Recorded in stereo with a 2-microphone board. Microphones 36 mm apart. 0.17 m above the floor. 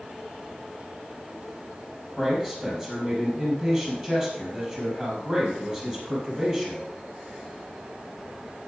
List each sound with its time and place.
2.2 s a man speaking: 30° right (ahead or behind), 5.5 m